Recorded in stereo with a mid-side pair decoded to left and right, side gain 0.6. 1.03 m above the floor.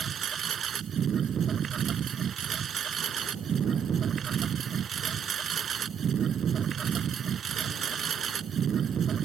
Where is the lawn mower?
40° right.